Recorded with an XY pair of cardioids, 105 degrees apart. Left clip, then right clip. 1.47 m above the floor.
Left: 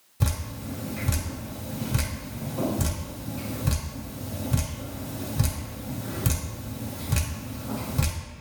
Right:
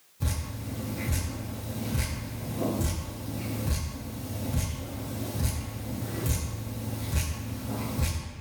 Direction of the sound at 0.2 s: 70° left.